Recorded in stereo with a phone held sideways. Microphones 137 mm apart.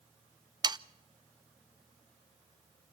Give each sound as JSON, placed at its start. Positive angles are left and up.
{"t": 0.6, "sound": "sawing", "side_deg": -35, "distance_m": 0.5}